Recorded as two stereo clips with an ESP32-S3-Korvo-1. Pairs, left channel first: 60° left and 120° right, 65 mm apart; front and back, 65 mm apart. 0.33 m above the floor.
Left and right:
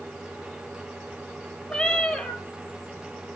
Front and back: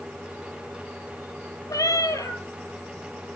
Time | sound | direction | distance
1.7 | a cat meowing | 15° right | 0.7 m